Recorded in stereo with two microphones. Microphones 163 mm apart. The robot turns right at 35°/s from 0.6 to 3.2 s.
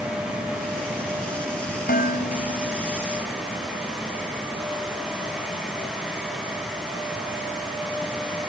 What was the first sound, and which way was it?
Dishes clattering, 70° left (ahead or behind).